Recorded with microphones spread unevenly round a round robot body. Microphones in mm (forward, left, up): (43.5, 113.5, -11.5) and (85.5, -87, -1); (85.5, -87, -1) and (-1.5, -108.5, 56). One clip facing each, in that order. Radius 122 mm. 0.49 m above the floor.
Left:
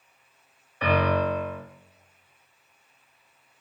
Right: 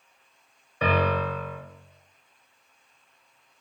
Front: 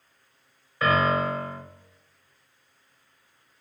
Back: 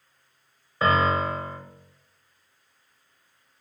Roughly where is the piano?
Right.